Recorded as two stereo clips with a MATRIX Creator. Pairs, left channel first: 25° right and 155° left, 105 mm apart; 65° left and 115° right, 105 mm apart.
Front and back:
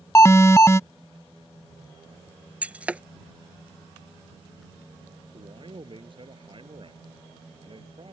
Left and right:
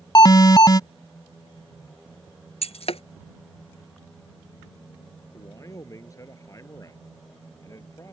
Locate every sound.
0.1 s an alarm: 30° left
2.6 s breaking glass: 80° left
5.3 s a man speaking: 125° left